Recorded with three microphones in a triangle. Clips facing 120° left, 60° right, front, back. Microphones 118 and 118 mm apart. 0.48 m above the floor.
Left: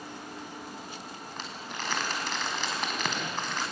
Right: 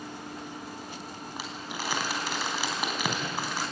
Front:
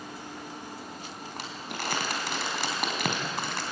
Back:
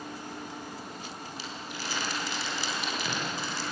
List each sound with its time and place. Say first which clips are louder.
1.4 s crumpling: right 2 dB, front 5 dB; 20° left, 4 m